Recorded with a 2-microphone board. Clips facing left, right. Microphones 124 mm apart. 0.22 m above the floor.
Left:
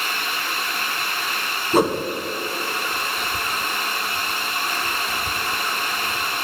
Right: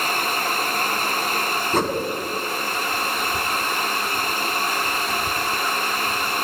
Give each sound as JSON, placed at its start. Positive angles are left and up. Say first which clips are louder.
{"t": 1.7, "sound": "a whoosh", "louder": "left 5 dB", "side_deg": 10, "distance_m": 0.9}